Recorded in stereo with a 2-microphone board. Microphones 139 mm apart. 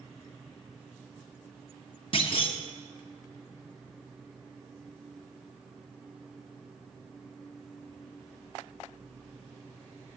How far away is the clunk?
About 1.4 m.